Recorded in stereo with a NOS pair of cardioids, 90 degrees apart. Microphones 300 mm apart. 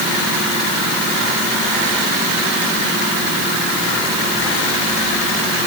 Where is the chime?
I don't hear a chime.